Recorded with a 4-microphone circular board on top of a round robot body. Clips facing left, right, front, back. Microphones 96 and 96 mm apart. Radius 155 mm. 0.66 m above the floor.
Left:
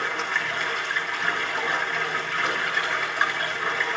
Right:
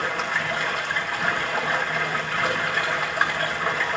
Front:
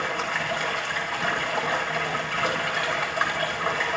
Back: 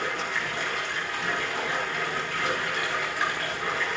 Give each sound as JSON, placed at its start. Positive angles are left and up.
{"t": 0.0, "sound": "running water", "azimuth_deg": -40, "distance_m": 6.0}